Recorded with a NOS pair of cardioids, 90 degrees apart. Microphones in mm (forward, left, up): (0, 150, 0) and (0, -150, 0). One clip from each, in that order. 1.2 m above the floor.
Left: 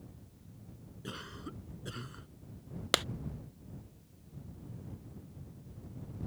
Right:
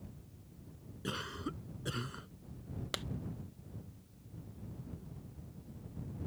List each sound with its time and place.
1.0 s a cough: 35° right
2.9 s a clap: 45° left